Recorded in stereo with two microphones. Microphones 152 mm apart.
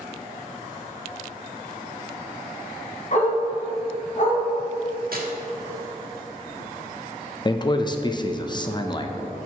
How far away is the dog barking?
About 2.5 m.